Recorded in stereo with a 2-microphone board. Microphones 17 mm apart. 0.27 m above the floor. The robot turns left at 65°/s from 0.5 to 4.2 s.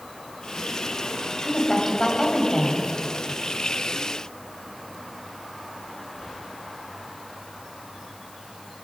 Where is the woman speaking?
170° left, 1.5 m; by 2.9 s 75° left, 1.5 m.